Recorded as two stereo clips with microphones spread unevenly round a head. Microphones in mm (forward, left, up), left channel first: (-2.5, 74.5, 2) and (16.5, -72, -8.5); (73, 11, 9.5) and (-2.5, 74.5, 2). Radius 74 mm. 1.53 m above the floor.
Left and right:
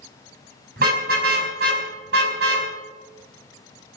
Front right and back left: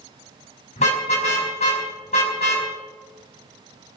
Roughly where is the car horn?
Ahead right.